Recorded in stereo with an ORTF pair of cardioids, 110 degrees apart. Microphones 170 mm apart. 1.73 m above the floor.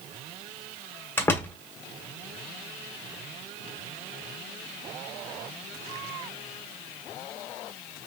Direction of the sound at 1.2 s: 15° left.